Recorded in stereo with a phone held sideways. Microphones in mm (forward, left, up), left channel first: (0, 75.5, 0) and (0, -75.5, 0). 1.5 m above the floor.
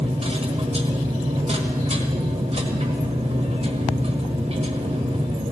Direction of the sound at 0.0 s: 40° right (ahead or behind).